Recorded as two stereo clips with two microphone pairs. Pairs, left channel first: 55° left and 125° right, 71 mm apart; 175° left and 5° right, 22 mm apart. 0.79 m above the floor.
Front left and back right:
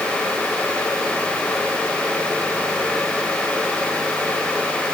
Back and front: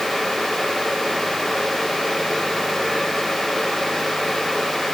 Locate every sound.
Only background noise.